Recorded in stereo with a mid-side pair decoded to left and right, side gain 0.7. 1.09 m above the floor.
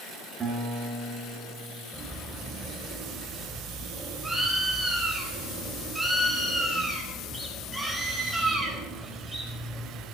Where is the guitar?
30° right, 8 m.